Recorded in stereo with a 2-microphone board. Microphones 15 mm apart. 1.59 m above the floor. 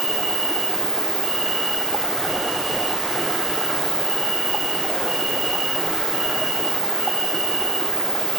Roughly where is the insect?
Right.